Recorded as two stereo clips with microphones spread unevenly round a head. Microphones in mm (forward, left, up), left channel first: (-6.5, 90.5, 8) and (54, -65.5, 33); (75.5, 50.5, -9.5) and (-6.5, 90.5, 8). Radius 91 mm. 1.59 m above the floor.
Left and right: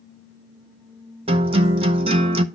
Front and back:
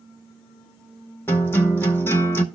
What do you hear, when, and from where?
1.3 s a guitar: 105° right, 0.8 m